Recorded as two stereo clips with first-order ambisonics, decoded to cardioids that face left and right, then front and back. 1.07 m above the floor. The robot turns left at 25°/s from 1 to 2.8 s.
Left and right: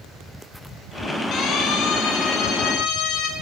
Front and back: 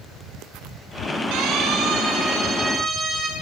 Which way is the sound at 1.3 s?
145° left.